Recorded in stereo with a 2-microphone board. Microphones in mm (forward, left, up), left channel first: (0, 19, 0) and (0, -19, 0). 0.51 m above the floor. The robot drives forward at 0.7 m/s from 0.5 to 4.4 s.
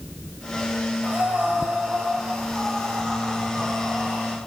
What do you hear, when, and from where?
1.0 s breathing: 40° right (ahead or behind), 2.5 m; by 4.4 s 20° right (ahead or behind), 4.5 m